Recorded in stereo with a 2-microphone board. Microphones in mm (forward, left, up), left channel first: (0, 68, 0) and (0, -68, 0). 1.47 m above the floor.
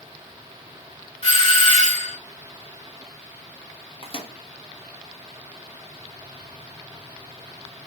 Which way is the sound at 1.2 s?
50° left (ahead or behind).